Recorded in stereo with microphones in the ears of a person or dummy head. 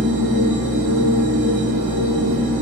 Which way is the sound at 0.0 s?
15° right (ahead or behind).